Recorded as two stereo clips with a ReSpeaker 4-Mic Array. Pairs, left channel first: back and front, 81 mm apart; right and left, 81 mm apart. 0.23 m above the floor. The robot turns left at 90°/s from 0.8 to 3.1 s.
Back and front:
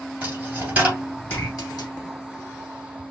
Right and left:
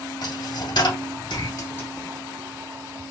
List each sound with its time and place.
0.2 s a dropped coin: 75° right, 2.5 m; by 1.9 s 170° right, 2.5 m